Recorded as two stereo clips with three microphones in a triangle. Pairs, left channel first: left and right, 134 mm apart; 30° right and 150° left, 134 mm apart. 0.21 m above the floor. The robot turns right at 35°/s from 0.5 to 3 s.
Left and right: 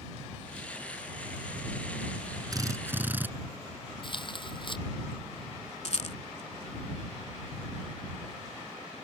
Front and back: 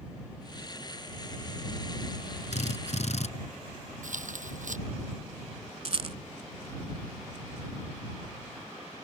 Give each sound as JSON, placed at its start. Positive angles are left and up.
{"t": 2.5, "sound": "a drill", "azimuth_deg": -35}
{"t": 4.0, "sound": "tearing paper", "azimuth_deg": 140}
{"t": 5.8, "sound": "a rattle", "azimuth_deg": 115}